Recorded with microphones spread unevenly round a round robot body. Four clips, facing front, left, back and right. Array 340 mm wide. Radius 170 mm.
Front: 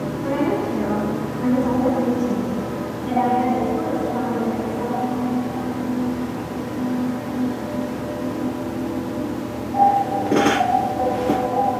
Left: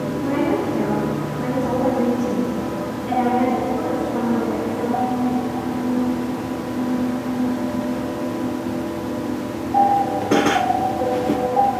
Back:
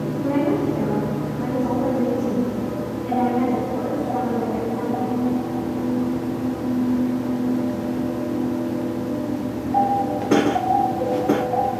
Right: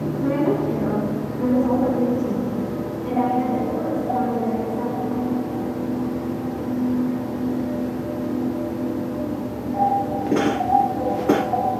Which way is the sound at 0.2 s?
105° right.